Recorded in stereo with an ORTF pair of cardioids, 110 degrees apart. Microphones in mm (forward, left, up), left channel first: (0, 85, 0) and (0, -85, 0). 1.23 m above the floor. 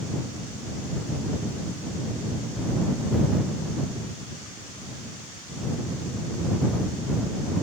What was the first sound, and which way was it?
Only background noise.